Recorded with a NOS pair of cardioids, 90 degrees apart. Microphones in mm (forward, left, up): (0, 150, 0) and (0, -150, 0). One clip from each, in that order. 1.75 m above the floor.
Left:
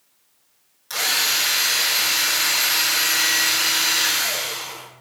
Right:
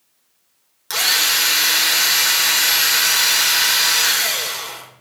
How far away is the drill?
About 4 m.